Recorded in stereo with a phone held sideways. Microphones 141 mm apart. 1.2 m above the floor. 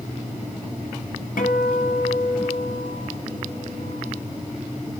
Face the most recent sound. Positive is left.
turn(degrees=80)